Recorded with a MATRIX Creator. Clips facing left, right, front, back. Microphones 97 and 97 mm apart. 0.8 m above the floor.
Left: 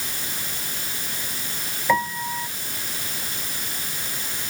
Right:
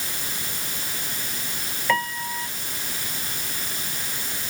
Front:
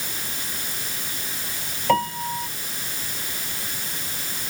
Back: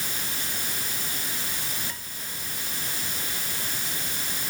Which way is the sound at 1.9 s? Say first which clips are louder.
Left 3 dB, front 20 dB; 10° left.